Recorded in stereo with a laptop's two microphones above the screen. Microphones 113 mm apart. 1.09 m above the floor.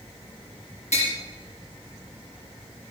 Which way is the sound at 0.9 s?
75° left (ahead or behind).